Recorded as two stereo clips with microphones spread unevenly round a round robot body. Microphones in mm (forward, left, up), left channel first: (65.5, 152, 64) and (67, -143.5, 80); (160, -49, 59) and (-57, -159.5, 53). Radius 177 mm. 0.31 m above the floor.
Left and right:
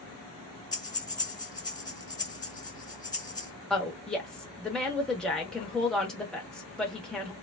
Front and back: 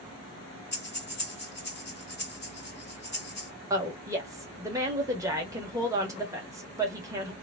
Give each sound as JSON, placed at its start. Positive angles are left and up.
{"t": 0.7, "sound": "breathing", "azimuth_deg": 25, "distance_m": 1.8}
{"t": 3.7, "sound": "a woman speaking", "azimuth_deg": 165, "distance_m": 1.0}